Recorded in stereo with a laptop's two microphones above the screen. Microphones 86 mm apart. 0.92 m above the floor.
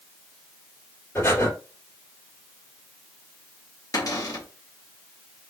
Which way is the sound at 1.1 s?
25° left (ahead or behind).